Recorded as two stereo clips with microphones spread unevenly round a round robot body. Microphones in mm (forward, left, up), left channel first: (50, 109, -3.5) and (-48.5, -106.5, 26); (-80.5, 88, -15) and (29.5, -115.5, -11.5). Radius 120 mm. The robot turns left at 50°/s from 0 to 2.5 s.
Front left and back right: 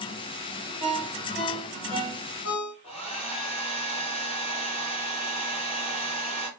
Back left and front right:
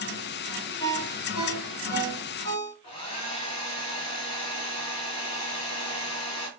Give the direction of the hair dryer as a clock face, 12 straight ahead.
8 o'clock.